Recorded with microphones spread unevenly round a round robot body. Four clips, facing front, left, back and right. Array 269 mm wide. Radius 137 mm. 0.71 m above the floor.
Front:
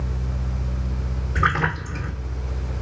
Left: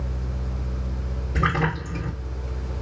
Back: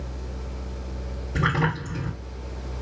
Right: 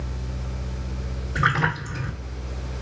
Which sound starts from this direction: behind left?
A splash, at 1.4 s.